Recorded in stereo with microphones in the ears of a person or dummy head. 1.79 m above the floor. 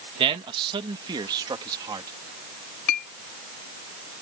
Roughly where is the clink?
Left.